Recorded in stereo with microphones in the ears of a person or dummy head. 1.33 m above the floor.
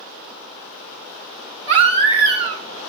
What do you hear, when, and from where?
1.7 s a baby crying: 30° right (ahead or behind), 1.1 m